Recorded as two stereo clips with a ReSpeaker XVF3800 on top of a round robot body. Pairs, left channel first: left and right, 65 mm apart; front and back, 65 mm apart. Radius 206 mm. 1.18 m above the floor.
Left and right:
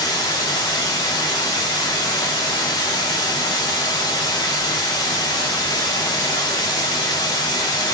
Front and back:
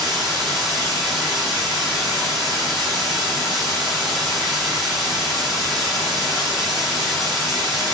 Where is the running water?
85° left, 0.8 m.